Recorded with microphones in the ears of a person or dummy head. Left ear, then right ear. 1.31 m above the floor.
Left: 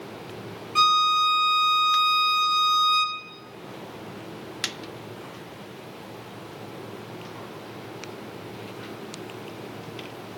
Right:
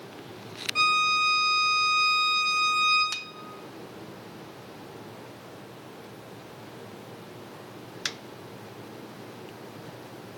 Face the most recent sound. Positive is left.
turn(degrees=15)  # may be behind; listen again after turning